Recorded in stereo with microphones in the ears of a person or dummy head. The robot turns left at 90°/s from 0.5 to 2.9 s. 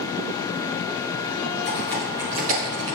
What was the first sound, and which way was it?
Typing on a keyboard, 35° left (ahead or behind).